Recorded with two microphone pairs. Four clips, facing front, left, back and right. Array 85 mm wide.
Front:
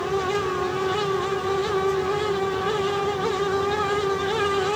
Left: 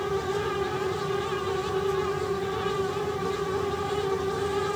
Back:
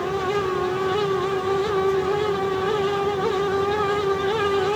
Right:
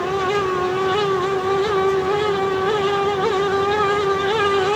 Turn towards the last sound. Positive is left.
No sound to turn to.